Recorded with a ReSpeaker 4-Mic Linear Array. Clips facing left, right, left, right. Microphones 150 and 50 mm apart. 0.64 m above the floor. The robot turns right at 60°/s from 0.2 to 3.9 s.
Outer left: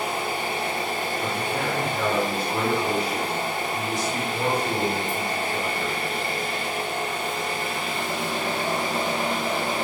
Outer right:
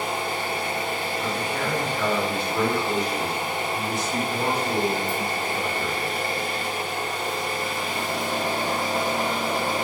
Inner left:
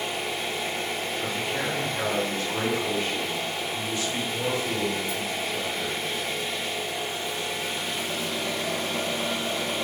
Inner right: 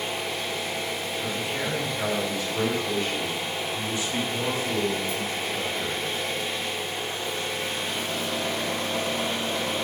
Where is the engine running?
Straight ahead, 0.8 m; by 9.8 s 135° right, 0.8 m.